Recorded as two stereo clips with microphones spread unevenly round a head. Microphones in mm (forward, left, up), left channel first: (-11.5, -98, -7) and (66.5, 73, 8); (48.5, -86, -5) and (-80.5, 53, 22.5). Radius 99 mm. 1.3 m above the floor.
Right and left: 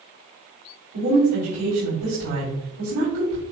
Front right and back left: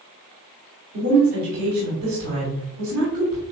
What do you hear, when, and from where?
0.9 s a woman speaking: 90° left, 3.5 m